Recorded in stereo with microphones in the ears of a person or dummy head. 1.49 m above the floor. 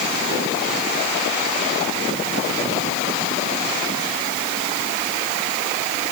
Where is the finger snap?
I don't hear a finger snap.